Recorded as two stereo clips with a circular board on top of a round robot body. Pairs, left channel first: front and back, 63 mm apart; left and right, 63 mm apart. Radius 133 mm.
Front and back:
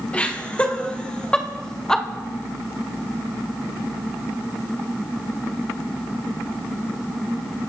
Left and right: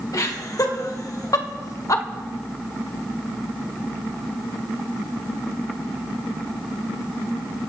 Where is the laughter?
70° left, 3 m; by 2.0 s 80° left, 1.8 m.